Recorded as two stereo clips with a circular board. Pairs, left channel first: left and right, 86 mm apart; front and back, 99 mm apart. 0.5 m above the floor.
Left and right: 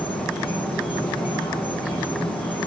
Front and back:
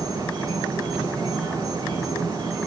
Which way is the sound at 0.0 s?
80° left.